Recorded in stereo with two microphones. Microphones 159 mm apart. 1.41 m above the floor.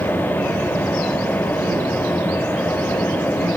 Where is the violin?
I don't hear a violin.